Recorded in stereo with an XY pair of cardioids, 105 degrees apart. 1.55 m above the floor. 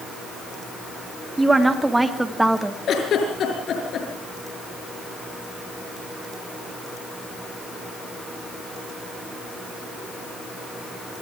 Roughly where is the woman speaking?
Ahead.